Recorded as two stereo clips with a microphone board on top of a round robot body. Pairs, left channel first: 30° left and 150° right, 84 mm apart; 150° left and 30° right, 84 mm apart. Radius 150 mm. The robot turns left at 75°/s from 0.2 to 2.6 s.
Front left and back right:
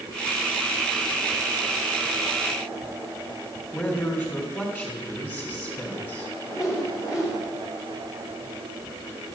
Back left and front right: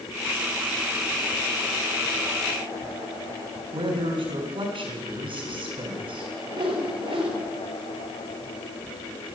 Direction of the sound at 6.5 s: 30° right.